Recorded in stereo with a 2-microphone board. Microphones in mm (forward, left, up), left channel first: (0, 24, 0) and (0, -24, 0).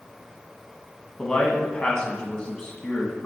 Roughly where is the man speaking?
Centre.